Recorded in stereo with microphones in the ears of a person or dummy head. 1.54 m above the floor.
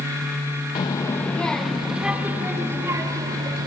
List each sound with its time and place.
0.8 s a child speaking: 25° left (ahead or behind), 1.0 m; by 3.7 s 20° right (ahead or behind), 2 m